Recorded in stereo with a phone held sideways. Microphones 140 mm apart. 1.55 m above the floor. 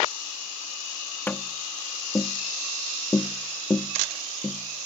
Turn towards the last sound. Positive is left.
turn(degrees=15)  # may be behind; listen again after turning